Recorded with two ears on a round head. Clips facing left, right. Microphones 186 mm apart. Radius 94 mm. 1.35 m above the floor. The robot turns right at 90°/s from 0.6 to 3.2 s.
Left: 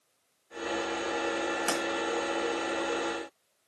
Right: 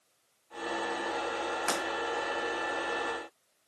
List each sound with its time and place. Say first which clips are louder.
1.7 s breaking glass: left 1 dB; 10° left (ahead or behind), 1.8 m; by 1.8 s 15° left (ahead or behind), 1.8 m